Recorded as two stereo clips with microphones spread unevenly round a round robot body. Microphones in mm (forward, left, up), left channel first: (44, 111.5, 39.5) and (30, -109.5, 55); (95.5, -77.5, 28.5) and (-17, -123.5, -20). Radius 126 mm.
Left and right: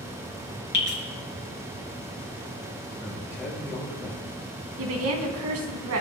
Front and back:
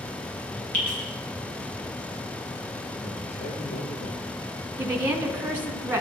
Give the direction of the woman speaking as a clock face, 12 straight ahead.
3 o'clock.